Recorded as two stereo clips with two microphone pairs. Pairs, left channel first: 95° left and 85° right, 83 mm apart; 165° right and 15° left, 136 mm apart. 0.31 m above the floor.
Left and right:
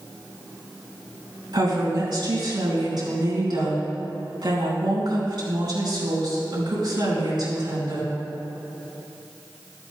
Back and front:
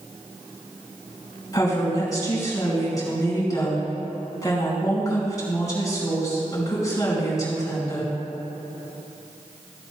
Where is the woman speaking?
100° right, 3.5 m.